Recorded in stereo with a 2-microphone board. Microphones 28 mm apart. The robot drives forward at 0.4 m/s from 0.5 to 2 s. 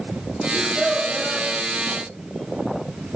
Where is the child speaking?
30° left (ahead or behind), 1.1 m; by 1.5 s 25° left (ahead or behind), 1.4 m.